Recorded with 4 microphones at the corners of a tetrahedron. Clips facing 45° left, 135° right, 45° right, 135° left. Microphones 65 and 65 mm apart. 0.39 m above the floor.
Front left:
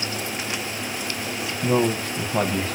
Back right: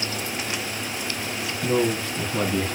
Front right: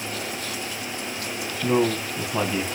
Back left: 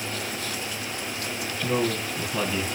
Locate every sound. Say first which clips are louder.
1.6 s a man speaking: front left 1 dB, front right 4 dB; 15° left, 2 m